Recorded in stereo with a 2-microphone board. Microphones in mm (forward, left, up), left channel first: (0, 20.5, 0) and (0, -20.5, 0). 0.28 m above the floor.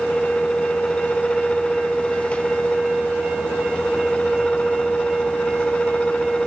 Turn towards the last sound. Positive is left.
No sound to turn to.